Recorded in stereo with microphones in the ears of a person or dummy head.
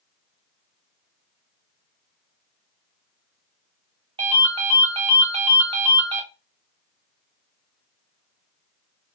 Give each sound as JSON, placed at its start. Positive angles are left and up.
{"t": 4.2, "sound": "a ringtone", "side_deg": -20, "distance_m": 0.6}